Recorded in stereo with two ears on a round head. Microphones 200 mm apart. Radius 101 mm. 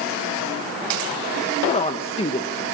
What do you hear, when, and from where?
1.7 s a woman speaking: 25° left (ahead or behind), 1.5 m